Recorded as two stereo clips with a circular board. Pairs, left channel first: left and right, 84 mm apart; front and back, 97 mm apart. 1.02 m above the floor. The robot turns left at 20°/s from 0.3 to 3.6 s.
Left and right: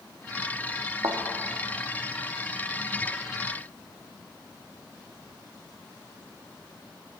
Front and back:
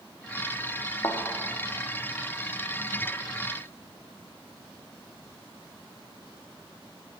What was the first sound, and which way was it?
A thud, 50° right.